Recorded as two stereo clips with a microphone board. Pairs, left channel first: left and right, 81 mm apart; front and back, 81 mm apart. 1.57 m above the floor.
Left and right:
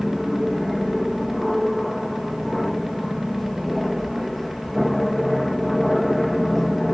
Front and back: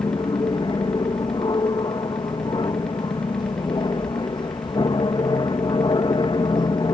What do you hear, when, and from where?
0.0 s an aircraft: straight ahead